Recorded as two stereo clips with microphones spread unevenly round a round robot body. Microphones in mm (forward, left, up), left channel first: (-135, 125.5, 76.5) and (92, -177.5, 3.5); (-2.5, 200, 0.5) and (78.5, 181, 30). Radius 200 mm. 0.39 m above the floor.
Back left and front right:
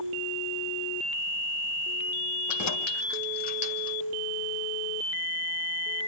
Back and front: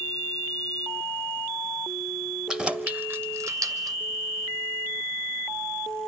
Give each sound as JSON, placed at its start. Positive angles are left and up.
{"t": 2.5, "sound": "keys jangling", "azimuth_deg": 80, "distance_m": 1.5}